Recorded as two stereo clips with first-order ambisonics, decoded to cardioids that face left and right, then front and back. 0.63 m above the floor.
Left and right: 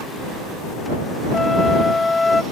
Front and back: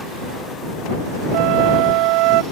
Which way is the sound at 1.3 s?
170° left.